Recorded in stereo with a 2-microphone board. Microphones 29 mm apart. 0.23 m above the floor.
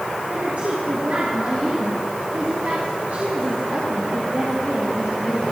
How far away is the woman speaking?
About 3.5 m.